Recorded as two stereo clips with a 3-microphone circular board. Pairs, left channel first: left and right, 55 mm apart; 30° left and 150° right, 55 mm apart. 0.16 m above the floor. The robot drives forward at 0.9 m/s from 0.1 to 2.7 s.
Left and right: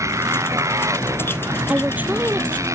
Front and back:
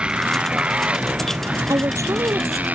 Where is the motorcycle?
80° right; by 2.8 s 90° right.